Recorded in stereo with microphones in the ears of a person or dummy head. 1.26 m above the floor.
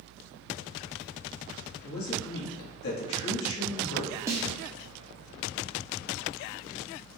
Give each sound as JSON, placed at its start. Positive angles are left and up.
{"t": 1.8, "sound": "a man speaking", "side_deg": 70, "distance_m": 1.5}
{"t": 4.3, "sound": "a snare drum", "side_deg": -10, "distance_m": 0.6}